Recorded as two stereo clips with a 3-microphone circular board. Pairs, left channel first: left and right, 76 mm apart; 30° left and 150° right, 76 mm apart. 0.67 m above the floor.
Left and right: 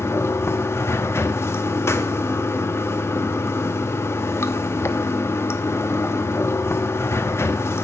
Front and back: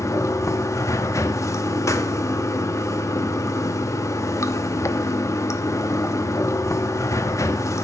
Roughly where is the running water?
Ahead left.